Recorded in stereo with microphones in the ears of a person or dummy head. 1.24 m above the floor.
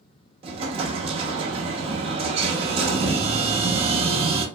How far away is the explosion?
About 0.6 m.